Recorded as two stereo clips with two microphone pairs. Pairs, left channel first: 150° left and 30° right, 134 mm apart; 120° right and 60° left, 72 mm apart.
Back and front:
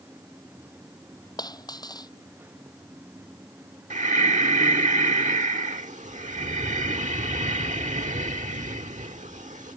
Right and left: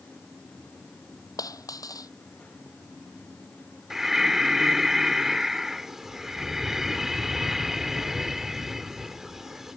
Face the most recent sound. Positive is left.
turn(degrees=-25)